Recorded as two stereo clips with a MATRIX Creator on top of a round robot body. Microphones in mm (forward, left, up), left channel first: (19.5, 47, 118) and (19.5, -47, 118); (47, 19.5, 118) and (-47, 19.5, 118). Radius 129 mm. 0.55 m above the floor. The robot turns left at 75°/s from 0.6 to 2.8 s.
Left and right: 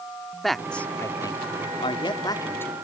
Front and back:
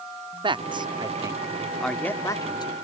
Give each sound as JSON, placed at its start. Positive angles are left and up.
{"t": 0.4, "sound": "a man speaking", "azimuth_deg": 180}